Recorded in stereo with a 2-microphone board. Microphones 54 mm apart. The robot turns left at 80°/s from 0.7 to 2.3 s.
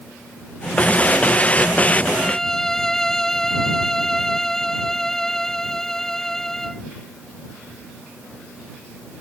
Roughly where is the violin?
Centre.